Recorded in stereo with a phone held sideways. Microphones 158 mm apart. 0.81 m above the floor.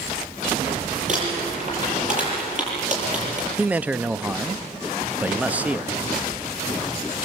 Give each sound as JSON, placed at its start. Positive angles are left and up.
{"t": 1.1, "sound": "crumpling", "side_deg": -50, "distance_m": 8.5}
{"t": 3.6, "sound": "a man speaking", "side_deg": -10, "distance_m": 0.5}